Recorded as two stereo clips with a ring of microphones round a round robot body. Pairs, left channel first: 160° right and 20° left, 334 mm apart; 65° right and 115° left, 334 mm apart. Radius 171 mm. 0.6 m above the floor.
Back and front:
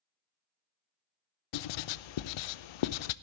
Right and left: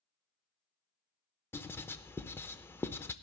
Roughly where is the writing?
Behind right.